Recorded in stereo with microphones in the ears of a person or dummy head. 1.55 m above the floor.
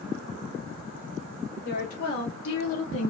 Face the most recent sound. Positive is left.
turn(degrees=65)  # may be behind; listen again after turning